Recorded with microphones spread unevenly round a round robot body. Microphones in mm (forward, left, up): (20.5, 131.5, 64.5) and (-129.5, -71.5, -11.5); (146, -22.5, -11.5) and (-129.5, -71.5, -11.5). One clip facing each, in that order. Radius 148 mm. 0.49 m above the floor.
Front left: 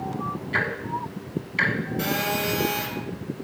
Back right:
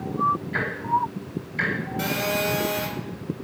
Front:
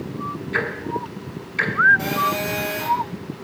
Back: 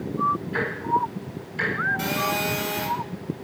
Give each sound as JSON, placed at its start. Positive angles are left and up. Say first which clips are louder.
{"t": 0.5, "sound": "ticking", "louder": "back right 1 dB, front 3 dB", "azimuth_deg": 20, "distance_m": 1.2}
{"t": 2.0, "sound": "a phone buzzing", "louder": "even, front 2 dB", "azimuth_deg": 170, "distance_m": 1.9}